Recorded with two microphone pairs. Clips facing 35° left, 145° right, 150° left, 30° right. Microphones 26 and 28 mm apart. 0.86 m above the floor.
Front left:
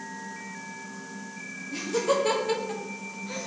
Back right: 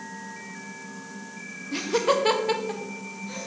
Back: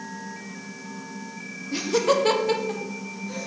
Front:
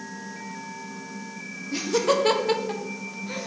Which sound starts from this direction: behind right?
Laughter, at 1.7 s.